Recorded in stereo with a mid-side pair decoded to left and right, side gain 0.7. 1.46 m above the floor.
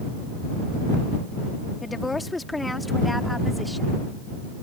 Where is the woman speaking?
15° left; by 4.0 s straight ahead.